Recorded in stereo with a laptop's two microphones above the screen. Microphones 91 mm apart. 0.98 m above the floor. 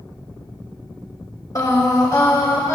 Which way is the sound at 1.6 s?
40° left (ahead or behind).